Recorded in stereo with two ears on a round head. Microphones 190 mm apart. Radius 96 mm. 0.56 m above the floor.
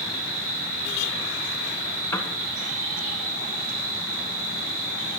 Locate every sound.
0.0 s an insect: 40° right (ahead or behind), 6 m
2.1 s a piano: 10° left (ahead or behind), 1.0 m